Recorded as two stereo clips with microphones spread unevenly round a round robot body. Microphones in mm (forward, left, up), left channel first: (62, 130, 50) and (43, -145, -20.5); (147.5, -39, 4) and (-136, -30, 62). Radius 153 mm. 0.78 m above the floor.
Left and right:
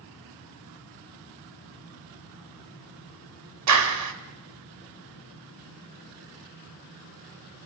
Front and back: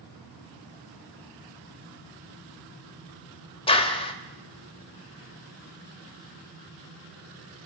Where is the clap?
75° right, 2 m.